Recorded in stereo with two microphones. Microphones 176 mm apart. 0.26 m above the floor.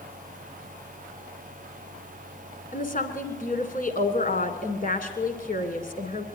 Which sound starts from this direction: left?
A woman speaking, at 2.7 s.